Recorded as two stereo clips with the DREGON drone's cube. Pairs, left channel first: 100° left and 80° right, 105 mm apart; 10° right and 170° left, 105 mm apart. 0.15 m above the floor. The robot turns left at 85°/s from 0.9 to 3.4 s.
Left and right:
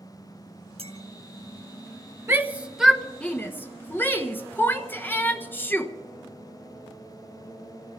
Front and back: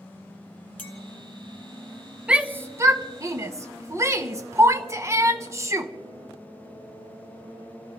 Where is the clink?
85° right, 2.5 m; by 1.0 s 90° right, 2.5 m.